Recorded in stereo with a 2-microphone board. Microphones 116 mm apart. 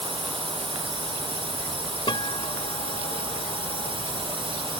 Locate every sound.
0.0 s a drone: 55° right (ahead or behind)
2.1 s a guitar: 45° left (ahead or behind)